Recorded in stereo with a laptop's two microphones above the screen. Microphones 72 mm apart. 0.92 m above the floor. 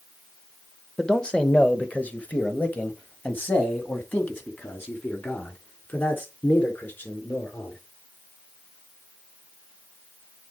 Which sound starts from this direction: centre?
A man speaking, at 1.0 s.